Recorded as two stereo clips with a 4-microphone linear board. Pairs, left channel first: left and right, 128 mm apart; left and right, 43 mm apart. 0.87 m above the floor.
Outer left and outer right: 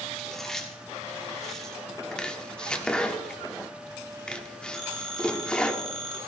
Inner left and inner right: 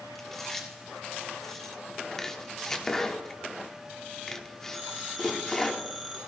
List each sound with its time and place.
0.1 s chewing: 5° left (ahead or behind), 3 m
2.1 s chopping: 10° left (ahead or behind), 1.4 m
4.7 s a phone ringing: centre (ahead or behind), 3 m